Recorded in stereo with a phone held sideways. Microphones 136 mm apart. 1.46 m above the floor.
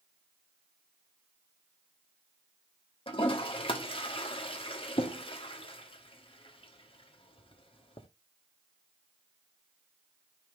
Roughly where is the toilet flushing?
Left.